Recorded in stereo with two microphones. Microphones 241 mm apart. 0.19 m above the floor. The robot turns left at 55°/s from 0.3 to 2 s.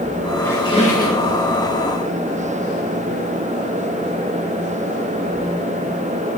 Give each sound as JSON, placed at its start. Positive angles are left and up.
{"t": 0.4, "sound": "a squeak", "azimuth_deg": 175, "distance_m": 3.0}